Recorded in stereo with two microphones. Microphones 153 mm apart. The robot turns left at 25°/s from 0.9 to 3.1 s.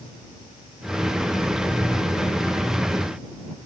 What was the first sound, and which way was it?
Only background noise.